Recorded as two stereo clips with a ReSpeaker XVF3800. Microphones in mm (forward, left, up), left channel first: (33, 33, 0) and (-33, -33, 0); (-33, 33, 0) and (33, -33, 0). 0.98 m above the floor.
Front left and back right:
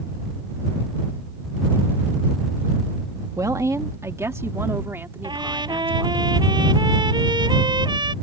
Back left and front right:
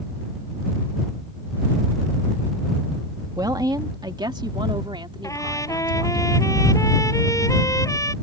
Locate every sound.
3.4 s a woman speaking: 85° right; by 6.2 s 65° right
5.2 s a trumpet: 170° right